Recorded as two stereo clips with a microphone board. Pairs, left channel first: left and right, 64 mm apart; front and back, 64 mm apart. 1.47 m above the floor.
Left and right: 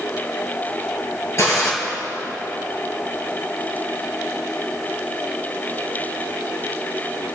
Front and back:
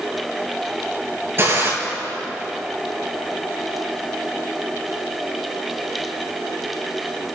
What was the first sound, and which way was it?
A gunshot, 135° left.